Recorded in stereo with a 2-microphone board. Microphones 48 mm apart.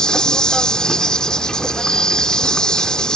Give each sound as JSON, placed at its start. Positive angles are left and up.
{"t": 0.0, "sound": "an insect", "side_deg": 15}